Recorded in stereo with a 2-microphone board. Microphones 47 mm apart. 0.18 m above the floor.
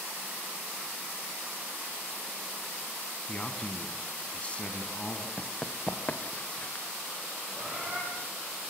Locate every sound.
3.3 s a man speaking: 25° left (ahead or behind), 1.9 m
5.4 s running footsteps: 30° left (ahead or behind), 2.0 m; by 6.8 s 40° left (ahead or behind), 3 m
7.5 s a bird: 35° right (ahead or behind), 9 m